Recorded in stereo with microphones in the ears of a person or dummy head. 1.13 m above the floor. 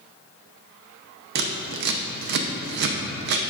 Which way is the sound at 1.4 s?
60° right (ahead or behind).